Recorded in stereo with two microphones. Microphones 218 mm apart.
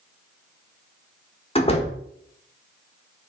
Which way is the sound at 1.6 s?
25° left (ahead or behind).